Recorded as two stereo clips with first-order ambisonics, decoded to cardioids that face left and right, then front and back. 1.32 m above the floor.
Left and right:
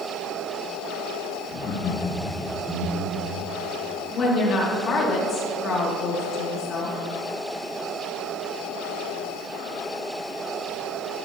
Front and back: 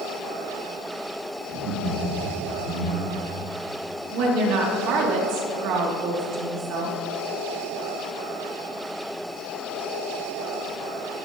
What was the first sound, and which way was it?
Laughter, 145° left.